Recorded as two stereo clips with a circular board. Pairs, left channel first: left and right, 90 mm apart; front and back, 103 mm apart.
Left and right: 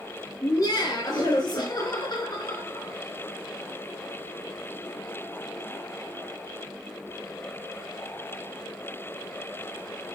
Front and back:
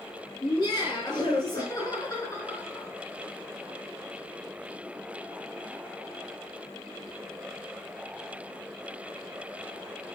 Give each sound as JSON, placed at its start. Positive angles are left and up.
{"t": 0.4, "sound": "laughter", "azimuth_deg": 45, "distance_m": 4.5}